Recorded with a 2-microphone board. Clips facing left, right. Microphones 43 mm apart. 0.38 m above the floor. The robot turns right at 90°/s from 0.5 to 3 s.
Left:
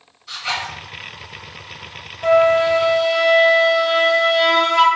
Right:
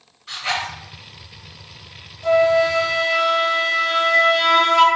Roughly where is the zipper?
Right.